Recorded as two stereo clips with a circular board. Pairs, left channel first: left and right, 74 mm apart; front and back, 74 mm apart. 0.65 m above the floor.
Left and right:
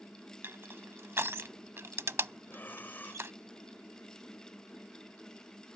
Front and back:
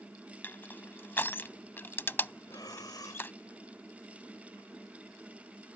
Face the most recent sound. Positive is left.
turn(degrees=25)